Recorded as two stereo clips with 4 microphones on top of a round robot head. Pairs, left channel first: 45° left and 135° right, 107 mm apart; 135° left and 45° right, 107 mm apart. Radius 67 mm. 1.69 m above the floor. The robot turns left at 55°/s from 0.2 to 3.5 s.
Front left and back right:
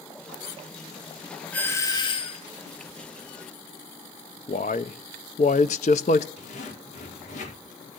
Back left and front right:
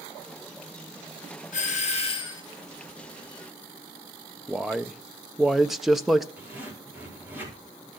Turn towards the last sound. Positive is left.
turn(degrees=30)